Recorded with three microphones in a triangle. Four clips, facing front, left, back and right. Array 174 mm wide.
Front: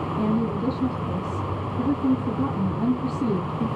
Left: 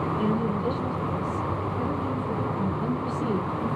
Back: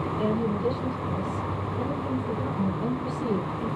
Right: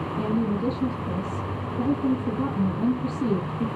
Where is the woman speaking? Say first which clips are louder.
Right 4 dB, front 2 dB; 60° right, 9 m.